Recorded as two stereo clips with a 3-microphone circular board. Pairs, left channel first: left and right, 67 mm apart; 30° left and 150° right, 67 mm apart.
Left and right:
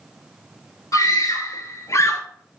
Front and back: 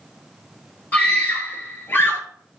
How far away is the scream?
About 2 m.